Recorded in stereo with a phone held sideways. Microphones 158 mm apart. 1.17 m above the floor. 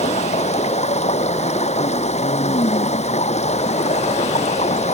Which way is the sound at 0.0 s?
45° left (ahead or behind).